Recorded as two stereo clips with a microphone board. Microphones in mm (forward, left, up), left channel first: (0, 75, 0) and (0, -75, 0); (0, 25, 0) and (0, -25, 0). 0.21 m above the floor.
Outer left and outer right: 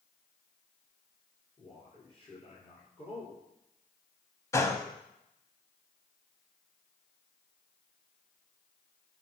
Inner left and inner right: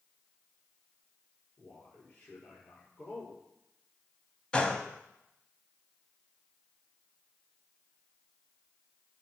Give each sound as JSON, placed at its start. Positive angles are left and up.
{"t": 1.6, "sound": "a man speaking", "side_deg": 35, "distance_m": 5.5}
{"t": 4.5, "sound": "a gunshot", "side_deg": 20, "distance_m": 1.0}